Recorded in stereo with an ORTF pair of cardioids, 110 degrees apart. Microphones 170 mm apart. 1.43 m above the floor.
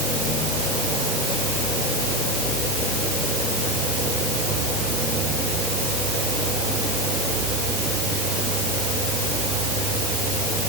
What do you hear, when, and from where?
Only background noise.